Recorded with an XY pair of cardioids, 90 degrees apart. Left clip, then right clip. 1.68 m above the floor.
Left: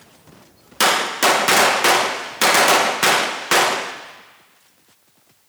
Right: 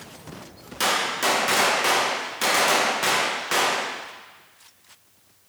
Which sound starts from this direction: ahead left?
A gunshot, at 0.8 s.